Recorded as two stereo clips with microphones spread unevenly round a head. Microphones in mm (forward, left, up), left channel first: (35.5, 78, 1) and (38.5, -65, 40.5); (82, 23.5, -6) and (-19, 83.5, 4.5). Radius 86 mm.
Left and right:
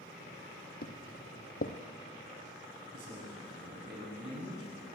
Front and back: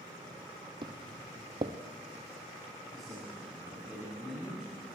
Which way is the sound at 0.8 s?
125° left.